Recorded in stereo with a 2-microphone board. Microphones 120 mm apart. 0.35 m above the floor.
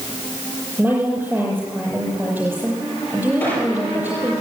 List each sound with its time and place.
0.8 s a woman speaking: 15° right (ahead or behind), 7.5 m
3.4 s a squeak: 15° left (ahead or behind), 7 m